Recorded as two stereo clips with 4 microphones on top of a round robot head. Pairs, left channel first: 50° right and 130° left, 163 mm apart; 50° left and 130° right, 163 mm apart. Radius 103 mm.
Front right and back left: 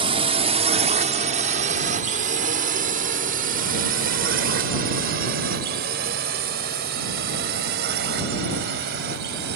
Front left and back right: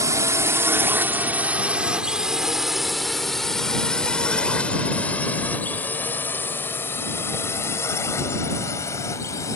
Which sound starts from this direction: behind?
A drone, at 0.0 s.